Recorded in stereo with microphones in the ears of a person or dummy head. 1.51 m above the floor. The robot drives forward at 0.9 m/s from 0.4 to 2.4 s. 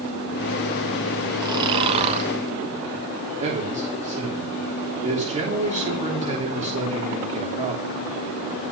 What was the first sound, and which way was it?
Snoring, 20° right (ahead or behind).